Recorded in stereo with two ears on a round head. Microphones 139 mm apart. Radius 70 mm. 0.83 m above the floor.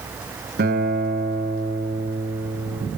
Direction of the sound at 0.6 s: 60° right (ahead or behind).